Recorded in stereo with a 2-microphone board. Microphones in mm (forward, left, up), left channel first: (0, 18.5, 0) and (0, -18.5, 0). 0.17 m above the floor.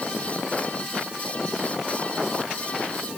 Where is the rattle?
No rattle in this recording.